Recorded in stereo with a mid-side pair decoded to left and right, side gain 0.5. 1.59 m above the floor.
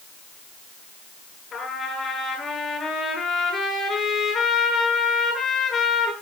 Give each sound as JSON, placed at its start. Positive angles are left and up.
{"t": 1.5, "sound": "a trumpet", "azimuth_deg": 45, "distance_m": 9.0}